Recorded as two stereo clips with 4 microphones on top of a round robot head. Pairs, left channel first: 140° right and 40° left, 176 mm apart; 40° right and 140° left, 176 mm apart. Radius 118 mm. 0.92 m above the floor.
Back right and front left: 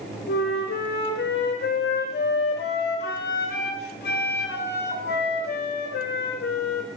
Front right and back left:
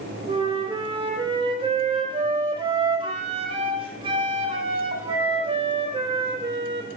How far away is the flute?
About 0.5 m.